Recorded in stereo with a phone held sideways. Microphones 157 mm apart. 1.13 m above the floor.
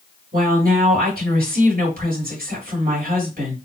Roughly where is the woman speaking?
Right.